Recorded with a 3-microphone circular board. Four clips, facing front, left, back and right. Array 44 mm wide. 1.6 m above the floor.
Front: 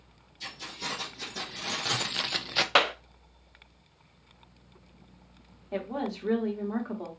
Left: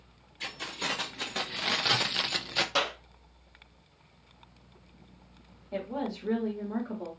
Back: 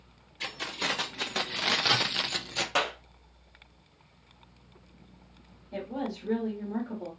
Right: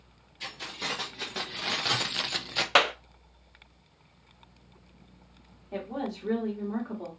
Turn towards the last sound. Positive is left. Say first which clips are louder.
# even, front 2 dB
turn(degrees=-10)